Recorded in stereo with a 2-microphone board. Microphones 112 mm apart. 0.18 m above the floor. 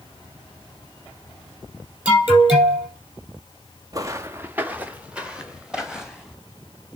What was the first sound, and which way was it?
An alarm, 15° right (ahead or behind).